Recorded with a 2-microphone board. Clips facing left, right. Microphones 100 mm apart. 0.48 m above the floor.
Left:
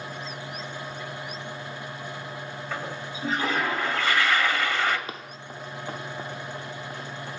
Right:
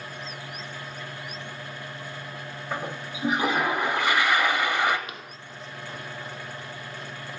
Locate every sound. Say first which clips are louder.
2.7 s a toilet flushing: right 2 dB; 20° right (ahead or behind), 0.8 m
5.1 s running footsteps: left 3 dB; 35° left (ahead or behind), 1.0 m; by 7.3 s 70° left (ahead or behind), 3.5 m